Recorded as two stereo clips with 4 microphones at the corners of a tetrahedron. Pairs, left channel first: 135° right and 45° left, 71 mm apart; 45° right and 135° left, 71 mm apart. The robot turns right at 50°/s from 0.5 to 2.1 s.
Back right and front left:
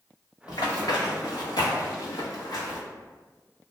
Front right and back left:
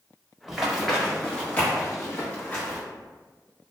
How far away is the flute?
I don't hear a flute.